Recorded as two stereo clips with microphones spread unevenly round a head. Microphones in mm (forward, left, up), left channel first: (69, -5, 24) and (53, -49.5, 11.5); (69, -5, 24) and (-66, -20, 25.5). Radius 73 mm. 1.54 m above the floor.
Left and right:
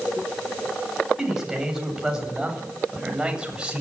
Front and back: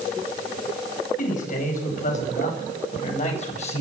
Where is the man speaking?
25° right, 9 m; by 3.8 s 35° right, 8 m.